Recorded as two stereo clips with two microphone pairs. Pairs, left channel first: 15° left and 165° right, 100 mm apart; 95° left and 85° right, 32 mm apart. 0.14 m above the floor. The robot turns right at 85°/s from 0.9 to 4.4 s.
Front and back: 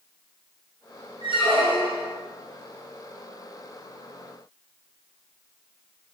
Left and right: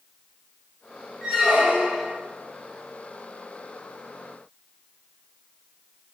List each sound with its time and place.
1.2 s a squeak: 175° right, 1.9 m; by 2.1 s 95° right, 1.9 m